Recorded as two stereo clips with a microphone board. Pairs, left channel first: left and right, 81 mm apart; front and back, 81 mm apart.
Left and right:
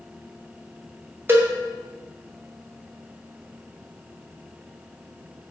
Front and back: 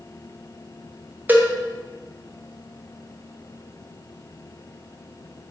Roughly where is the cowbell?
Behind right.